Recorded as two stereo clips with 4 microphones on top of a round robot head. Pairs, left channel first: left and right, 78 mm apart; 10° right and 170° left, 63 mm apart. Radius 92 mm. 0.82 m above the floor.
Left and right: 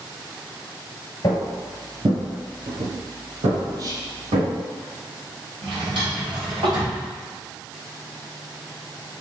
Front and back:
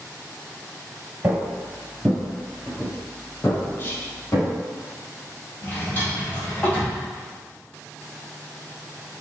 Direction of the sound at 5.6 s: 80° right.